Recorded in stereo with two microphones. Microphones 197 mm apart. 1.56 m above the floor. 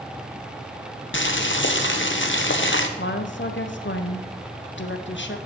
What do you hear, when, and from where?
1.1 s boiling: 75° left (ahead or behind), 0.8 m
3.0 s a woman speaking: 70° left (ahead or behind), 0.9 m